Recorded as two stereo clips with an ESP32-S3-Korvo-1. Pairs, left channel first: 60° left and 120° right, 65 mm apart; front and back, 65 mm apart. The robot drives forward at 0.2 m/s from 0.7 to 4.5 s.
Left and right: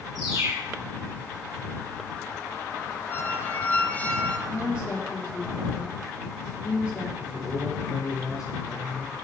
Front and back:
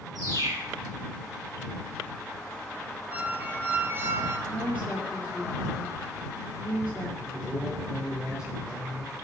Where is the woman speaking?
115° left, 4.5 m.